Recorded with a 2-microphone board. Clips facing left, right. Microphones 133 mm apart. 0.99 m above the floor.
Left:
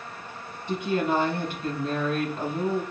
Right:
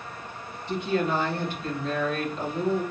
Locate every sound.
0.7 s a woman speaking: 55° left (ahead or behind), 3 m